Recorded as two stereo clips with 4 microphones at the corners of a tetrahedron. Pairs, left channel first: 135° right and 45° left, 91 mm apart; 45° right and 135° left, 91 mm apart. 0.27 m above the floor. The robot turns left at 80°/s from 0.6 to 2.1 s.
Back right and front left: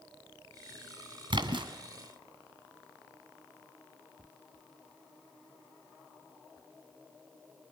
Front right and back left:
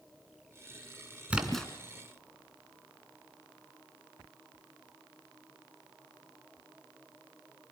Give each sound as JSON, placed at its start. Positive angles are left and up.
{"t": 1.3, "sound": "a splash", "azimuth_deg": 60, "distance_m": 2.0}